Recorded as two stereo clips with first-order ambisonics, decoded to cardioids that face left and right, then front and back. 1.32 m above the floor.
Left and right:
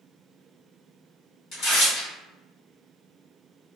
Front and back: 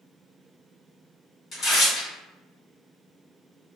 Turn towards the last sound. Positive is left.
turn(degrees=55)